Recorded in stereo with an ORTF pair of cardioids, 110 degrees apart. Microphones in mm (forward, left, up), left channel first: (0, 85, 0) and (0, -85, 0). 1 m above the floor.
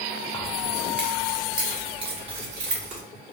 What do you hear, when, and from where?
0.3 s keys jangling: 20° left, 0.8 m; by 3.0 s 45° right, 1.8 m